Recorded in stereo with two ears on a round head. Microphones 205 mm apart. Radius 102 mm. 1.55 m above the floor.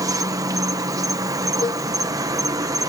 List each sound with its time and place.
0.0 s an insect: 15° right (ahead or behind)
1.6 s a cowbell: 20° left (ahead or behind)